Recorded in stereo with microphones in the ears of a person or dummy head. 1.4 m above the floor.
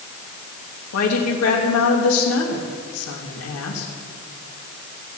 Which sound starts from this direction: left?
A woman speaking, at 0.9 s.